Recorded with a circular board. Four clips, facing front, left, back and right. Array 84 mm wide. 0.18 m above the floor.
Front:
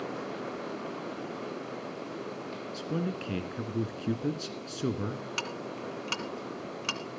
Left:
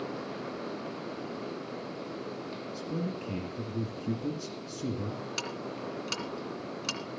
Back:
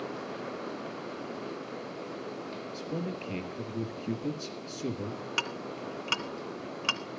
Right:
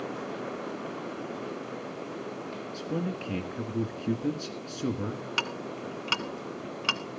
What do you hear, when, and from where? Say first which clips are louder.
2.7 s a man speaking: right 3 dB, front 3 dB; 35° right, 2 m
5.4 s ticking: right 3 dB, back 1 dB; 110° right, 1.8 m